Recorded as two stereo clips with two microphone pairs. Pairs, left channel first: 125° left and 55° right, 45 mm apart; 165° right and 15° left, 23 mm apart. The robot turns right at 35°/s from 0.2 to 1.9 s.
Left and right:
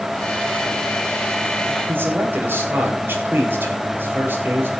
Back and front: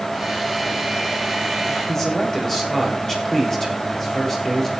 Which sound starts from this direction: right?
A man speaking, at 1.9 s.